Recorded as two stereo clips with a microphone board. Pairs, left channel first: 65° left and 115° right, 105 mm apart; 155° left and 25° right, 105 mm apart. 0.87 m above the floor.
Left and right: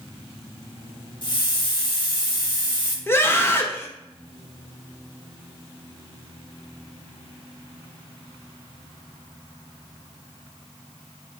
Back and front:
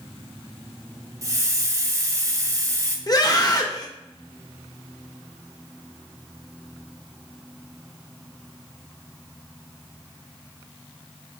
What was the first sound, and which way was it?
A hiss, 30° left.